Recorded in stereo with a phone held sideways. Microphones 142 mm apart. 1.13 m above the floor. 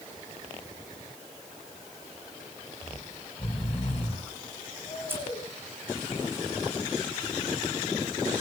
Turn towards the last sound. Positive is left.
turn(degrees=-15)  # may be behind; listen again after turning